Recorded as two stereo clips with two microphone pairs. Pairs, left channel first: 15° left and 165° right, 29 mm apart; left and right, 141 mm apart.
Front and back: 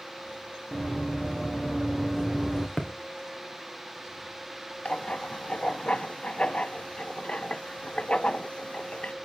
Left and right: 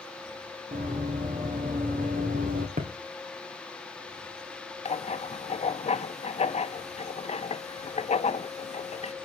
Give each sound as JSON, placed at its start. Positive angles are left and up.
{"t": 0.7, "sound": "running footsteps", "azimuth_deg": -65, "distance_m": 4.0}
{"t": 2.8, "sound": "a thud", "azimuth_deg": -70, "distance_m": 2.0}
{"t": 4.8, "sound": "writing", "azimuth_deg": 60, "distance_m": 0.5}